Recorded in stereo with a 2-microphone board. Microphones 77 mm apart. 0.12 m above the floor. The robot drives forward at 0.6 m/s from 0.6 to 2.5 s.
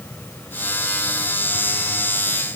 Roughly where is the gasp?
I don't hear a gasp.